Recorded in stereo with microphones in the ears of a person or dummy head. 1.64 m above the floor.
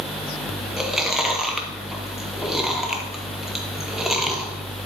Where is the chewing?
5° right (ahead or behind), 0.7 m.